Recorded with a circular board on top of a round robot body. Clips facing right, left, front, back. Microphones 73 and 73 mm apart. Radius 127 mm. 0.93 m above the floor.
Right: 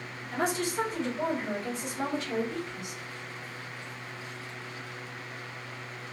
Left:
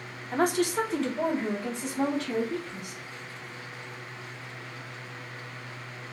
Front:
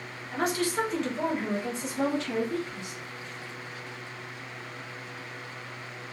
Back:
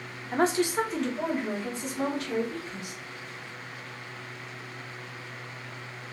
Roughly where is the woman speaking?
Behind left.